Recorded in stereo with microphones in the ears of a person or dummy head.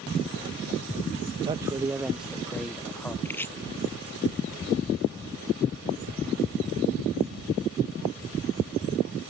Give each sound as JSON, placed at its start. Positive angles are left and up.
{"t": 1.4, "sound": "a man speaking", "side_deg": -25}
{"t": 3.2, "sound": "chopping", "side_deg": 10}